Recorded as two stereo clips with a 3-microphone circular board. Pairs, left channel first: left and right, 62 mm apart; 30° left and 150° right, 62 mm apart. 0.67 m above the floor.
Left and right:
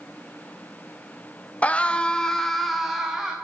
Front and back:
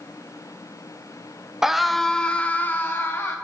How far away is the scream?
About 0.6 m.